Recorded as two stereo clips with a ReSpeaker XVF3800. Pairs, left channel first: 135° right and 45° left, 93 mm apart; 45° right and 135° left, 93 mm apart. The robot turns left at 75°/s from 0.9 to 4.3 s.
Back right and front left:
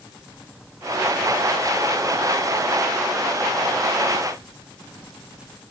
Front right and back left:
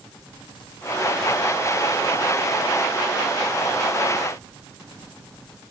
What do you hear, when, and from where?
Only background noise.